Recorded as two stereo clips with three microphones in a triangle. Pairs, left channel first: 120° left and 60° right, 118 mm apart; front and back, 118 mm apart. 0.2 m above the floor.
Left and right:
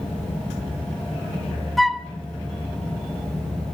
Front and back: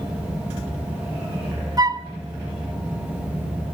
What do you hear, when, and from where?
1.8 s a flute: 150° right, 1.1 m